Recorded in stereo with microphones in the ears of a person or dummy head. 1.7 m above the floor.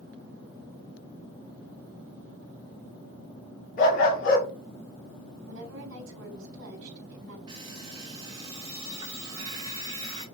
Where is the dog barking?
45° left (ahead or behind), 1.6 m.